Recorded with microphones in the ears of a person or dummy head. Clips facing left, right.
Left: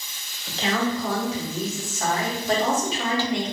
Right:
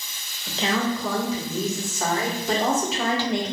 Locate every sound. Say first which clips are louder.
0.5 s a woman speaking: even; 70° right (ahead or behind), 2 m; by 3.5 s 50° right (ahead or behind), 1.8 m